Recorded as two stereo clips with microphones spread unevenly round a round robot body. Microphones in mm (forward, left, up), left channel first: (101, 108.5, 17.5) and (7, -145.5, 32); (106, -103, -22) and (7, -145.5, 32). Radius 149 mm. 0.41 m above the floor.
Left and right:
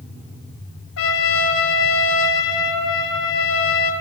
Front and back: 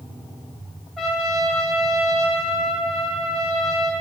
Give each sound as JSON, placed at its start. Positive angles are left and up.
{"t": 1.0, "sound": "a trumpet", "azimuth_deg": 90, "distance_m": 1.5}